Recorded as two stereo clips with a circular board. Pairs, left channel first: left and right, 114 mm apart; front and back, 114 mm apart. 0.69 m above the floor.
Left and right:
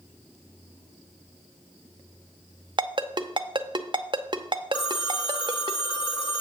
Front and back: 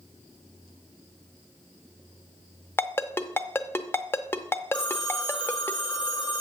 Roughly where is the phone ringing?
Ahead left.